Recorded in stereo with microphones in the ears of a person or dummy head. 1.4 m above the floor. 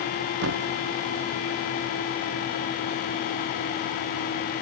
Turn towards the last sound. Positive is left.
turn(degrees=-65)  # may be behind; listen again after turning